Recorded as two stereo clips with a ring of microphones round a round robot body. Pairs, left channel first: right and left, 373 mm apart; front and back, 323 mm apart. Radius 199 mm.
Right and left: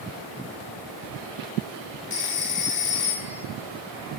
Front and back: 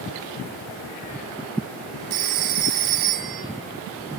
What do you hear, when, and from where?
2.1 s a phone ringing: 160° right, 2.0 m